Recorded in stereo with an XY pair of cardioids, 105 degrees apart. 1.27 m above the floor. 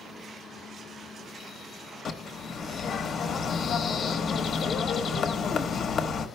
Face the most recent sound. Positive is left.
turn(degrees=55)